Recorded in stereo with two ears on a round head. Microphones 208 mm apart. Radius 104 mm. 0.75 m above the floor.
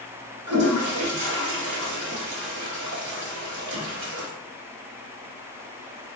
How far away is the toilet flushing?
About 1.1 m.